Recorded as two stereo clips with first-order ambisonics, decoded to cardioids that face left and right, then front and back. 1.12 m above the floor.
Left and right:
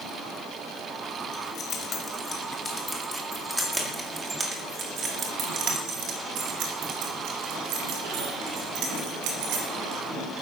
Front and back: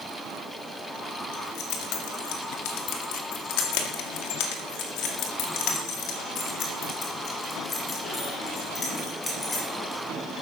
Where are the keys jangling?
30° left, 2.5 m; by 10.0 s 75° right, 4 m.